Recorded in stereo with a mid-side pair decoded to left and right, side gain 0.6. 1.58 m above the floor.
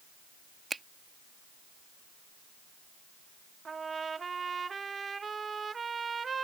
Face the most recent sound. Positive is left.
turn(degrees=-25)